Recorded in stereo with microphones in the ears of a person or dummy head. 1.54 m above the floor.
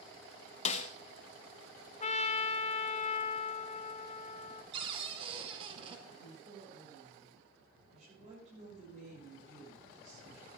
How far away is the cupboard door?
About 2 m.